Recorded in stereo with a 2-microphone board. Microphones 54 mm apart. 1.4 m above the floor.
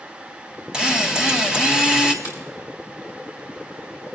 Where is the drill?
15° right (ahead or behind), 2.0 m.